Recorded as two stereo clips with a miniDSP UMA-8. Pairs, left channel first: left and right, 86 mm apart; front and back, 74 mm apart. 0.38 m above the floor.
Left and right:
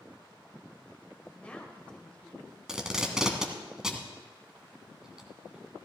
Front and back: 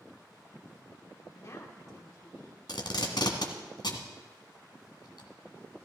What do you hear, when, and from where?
1.3 s a woman speaking: 20° left, 1.9 m
2.7 s tape being pulled: 10° right, 1.4 m